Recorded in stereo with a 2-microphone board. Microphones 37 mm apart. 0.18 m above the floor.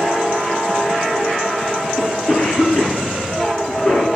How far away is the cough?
About 3.5 m.